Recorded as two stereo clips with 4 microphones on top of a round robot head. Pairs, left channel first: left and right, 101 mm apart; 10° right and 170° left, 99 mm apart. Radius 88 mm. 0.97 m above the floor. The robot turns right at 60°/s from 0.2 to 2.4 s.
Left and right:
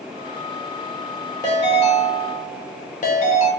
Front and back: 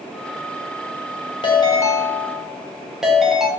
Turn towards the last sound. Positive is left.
turn(degrees=85)